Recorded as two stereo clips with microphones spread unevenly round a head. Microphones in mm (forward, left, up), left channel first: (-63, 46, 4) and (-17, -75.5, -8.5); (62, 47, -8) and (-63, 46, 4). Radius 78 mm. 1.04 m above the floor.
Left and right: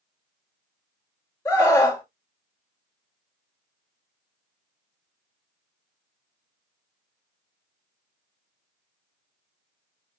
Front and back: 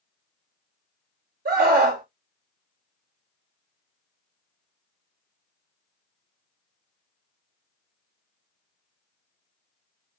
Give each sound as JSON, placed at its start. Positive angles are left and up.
{"t": 1.4, "sound": "a scream", "azimuth_deg": 180, "distance_m": 1.7}